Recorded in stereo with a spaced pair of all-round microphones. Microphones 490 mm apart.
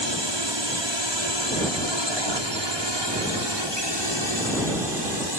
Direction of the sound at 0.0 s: 60° right (ahead or behind).